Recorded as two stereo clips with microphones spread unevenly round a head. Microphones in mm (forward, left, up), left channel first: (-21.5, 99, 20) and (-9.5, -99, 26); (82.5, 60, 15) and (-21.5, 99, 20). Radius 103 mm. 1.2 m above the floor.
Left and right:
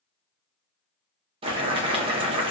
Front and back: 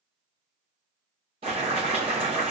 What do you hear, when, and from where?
1.4 s boiling: 150° right, 0.6 m